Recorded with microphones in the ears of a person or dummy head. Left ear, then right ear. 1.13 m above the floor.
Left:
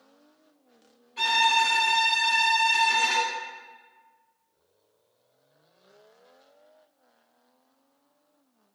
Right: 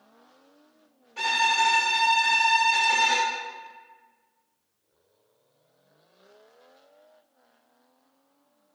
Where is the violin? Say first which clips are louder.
Left 1 dB; 30° right (ahead or behind), 1.7 m.